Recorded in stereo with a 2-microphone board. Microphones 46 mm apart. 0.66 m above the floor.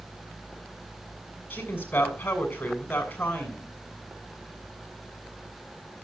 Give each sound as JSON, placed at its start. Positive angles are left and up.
{"t": 1.5, "sound": "a woman speaking", "side_deg": 40, "distance_m": 7.0}